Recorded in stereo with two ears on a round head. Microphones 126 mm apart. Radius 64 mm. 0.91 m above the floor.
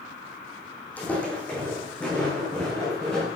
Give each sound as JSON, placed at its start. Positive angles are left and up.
{"t": 1.0, "sound": "footsteps", "side_deg": 10, "distance_m": 2.5}